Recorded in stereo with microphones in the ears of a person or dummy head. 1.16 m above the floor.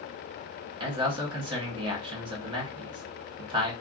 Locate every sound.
0.8 s a man speaking: 30° right (ahead or behind), 1.0 m